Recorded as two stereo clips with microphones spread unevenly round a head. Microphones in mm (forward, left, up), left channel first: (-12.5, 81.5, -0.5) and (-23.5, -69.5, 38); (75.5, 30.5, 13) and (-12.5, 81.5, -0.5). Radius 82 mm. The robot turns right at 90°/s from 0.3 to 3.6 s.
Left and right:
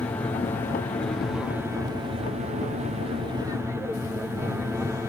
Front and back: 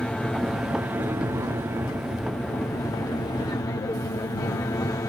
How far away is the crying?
I don't hear crying.